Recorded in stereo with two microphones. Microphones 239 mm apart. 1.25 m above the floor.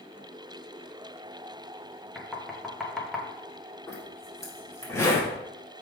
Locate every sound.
2.1 s knocking: centre (ahead or behind), 1.2 m
3.9 s a zipper: 10° left (ahead or behind), 1.9 m